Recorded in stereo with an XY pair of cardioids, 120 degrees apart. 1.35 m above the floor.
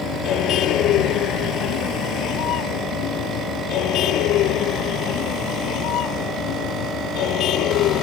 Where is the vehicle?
70° left.